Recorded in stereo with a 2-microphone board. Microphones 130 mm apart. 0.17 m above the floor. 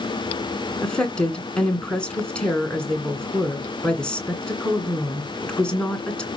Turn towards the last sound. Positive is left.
turn(degrees=10)  # may be behind; listen again after turning